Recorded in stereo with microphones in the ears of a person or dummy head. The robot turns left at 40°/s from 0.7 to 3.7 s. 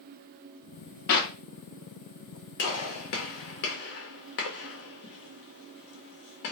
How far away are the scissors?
No scissors in this recording.